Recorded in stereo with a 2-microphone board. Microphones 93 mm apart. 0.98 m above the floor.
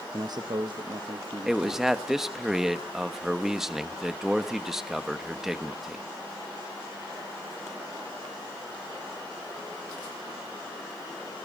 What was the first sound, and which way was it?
A man speaking, 40° right (ahead or behind).